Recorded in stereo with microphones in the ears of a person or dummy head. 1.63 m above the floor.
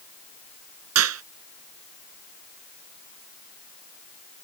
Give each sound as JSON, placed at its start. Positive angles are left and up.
{"t": 0.9, "sound": "a clap", "side_deg": -85}